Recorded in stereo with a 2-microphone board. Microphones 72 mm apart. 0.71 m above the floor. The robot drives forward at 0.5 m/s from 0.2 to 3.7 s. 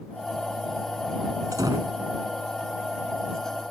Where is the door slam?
70° right (ahead or behind).